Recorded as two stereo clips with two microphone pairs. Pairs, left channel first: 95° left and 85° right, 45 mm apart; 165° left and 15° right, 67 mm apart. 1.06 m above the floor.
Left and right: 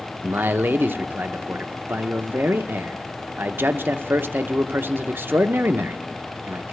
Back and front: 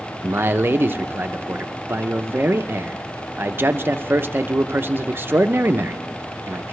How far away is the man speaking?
About 0.5 m.